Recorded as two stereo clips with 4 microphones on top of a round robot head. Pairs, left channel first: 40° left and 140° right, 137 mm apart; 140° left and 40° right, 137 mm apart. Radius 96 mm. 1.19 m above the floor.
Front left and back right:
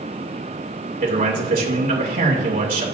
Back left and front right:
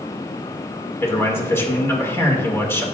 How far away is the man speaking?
About 2.5 m.